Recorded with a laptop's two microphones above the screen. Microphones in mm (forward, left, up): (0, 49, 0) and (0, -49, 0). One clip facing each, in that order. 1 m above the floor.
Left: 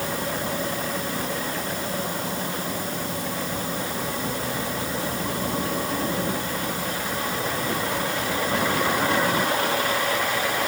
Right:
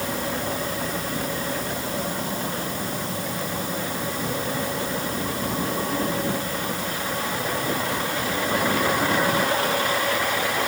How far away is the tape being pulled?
I don't hear tape being pulled.